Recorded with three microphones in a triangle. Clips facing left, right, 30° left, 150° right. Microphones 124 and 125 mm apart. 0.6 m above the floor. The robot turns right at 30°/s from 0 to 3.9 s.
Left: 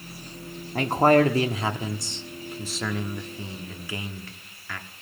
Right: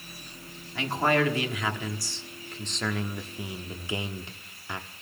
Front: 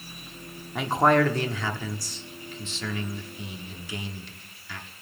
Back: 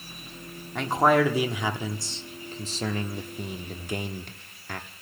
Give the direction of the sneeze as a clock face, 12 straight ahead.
I don't hear a sneeze.